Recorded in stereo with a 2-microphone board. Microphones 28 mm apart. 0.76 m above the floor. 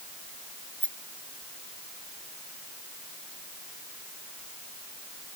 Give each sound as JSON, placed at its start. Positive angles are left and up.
{"t": 0.8, "sound": "a rattle", "side_deg": 50}